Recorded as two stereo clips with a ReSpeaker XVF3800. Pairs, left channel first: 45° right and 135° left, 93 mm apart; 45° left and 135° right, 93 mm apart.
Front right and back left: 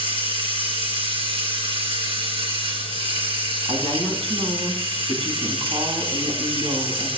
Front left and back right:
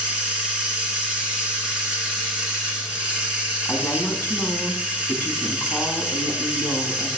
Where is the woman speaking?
115° left, 3.5 m.